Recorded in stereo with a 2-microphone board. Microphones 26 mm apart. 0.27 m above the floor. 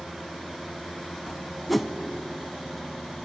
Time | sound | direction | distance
1.7 | a whoosh | centre (ahead or behind) | 0.7 m